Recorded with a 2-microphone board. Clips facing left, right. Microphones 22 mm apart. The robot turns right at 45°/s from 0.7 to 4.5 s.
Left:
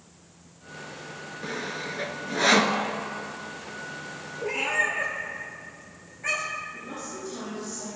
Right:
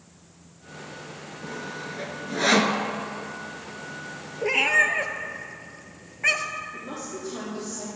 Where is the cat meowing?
40° right (ahead or behind), 1.1 m; by 6.7 s 45° right (ahead or behind), 1.1 m.